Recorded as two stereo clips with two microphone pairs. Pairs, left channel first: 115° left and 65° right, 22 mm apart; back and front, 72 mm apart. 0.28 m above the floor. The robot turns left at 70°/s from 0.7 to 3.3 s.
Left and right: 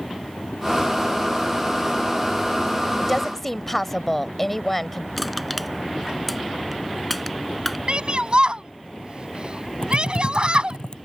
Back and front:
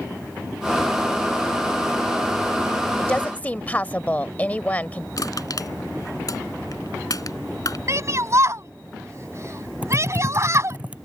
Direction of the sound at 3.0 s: 145° right.